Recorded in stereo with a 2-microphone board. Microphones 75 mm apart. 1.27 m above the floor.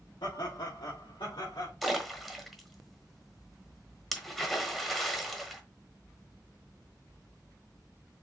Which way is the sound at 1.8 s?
Centre (ahead or behind).